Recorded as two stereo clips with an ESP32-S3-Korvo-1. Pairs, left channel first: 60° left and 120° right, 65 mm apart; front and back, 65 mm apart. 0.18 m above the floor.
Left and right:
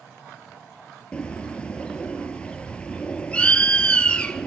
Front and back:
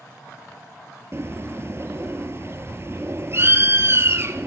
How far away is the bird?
About 1.4 m.